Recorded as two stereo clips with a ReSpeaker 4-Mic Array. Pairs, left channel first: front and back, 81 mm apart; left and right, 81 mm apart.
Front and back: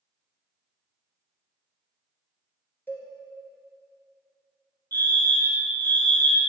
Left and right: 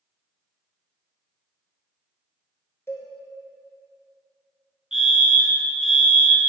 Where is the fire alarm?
15° right, 2.5 m.